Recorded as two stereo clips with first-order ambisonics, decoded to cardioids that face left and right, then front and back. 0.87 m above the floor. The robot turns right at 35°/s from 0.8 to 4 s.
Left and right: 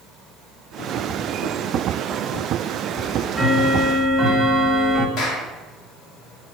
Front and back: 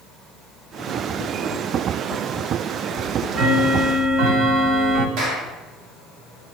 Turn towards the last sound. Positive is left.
turn(degrees=140)